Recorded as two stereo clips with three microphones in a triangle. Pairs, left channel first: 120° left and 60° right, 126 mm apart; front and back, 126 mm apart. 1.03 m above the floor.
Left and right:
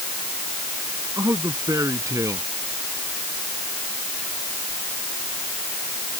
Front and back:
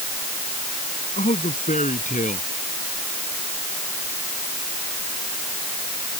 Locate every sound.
1.2 s a man speaking: 5° left